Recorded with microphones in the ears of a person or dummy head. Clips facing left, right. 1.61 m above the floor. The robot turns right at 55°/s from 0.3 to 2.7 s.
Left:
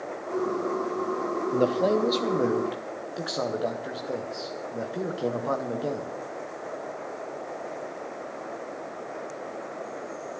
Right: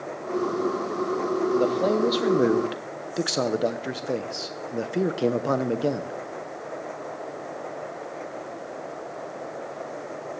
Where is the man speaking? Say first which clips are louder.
Left 1 dB; 165° left, 0.8 m; by 6.2 s 130° right, 0.8 m.